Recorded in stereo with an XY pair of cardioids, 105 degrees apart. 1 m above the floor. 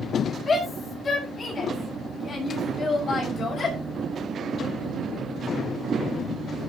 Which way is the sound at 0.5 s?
45° left.